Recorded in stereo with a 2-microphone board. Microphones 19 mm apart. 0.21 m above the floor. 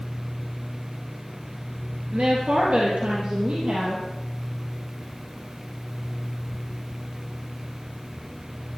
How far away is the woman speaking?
About 3.5 m.